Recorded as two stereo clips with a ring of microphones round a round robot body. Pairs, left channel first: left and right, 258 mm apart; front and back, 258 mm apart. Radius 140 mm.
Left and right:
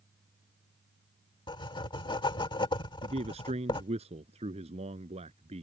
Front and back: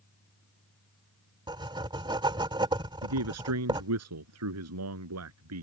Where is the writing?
135° left.